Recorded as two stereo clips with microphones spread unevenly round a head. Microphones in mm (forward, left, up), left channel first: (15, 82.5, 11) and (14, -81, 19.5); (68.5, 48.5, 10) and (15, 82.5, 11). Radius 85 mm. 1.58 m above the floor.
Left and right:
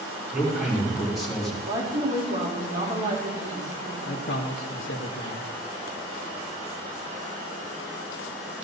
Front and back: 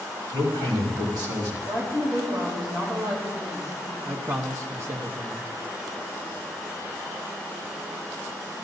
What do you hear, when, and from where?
0.3 s a man speaking: 175° right, 5 m; by 1.6 s straight behind, 4 m
1.6 s a woman speaking: 140° right, 4 m
4.0 s a man speaking: 105° left, 1.3 m